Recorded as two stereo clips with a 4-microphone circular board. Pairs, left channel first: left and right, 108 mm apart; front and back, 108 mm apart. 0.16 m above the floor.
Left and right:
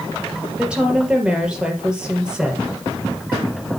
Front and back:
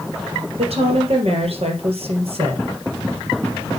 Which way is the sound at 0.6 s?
170° right.